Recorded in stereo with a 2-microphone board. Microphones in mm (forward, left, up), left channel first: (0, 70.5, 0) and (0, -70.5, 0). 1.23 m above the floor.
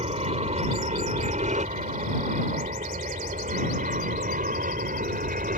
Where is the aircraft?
45° right (ahead or behind); by 5.6 s 70° right (ahead or behind).